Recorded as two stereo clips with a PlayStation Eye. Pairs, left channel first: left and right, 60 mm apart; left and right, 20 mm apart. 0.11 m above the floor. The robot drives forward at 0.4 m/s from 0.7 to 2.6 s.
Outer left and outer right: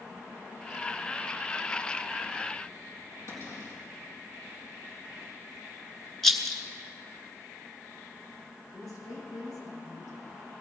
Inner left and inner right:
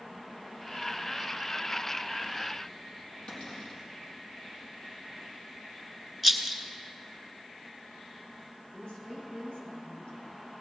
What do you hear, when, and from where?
3.3 s a cupboard door: 50° left (ahead or behind), 3.5 m
6.2 s a rattle: centre (ahead or behind), 1.2 m
8.7 s a woman speaking: 70° left (ahead or behind), 6 m